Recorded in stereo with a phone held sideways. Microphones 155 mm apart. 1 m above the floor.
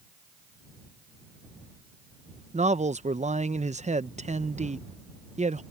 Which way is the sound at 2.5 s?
50° right (ahead or behind).